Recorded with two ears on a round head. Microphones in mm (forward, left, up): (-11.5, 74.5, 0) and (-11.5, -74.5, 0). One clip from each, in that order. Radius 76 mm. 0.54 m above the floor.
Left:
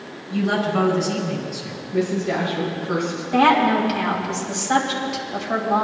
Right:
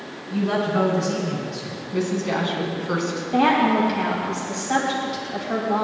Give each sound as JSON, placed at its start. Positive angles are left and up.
{"t": 0.3, "sound": "a woman speaking", "side_deg": 10, "distance_m": 4.5}
{"t": 1.9, "sound": "a woman speaking", "side_deg": -60, "distance_m": 4.5}
{"t": 3.3, "sound": "a woman speaking", "side_deg": 20, "distance_m": 3.0}